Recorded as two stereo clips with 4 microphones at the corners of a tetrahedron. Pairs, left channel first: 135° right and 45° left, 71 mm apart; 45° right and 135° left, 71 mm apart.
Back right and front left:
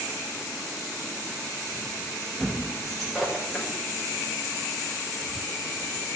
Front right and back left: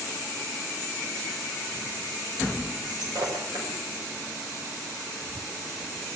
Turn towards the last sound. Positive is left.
turn(degrees=135)